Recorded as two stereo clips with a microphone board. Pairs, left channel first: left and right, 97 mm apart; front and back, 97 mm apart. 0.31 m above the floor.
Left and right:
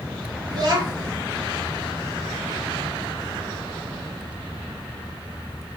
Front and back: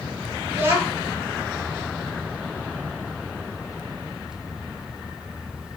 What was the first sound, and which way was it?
A child speaking, 120° right.